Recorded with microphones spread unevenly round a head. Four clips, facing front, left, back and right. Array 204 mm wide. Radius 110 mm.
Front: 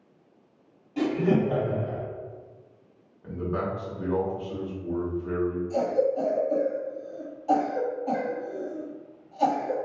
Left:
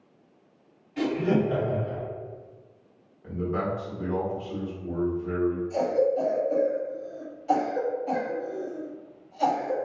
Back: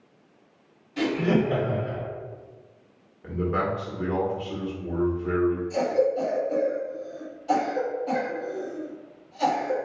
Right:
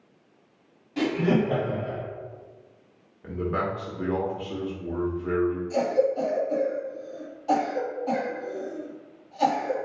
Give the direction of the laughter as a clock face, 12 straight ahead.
2 o'clock.